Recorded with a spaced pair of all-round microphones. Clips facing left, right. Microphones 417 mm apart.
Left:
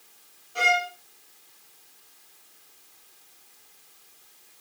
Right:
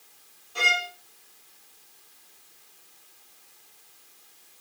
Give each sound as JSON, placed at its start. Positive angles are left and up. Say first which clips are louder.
{"t": 0.6, "sound": "a violin", "louder": "left 6 dB", "side_deg": -5, "distance_m": 1.7}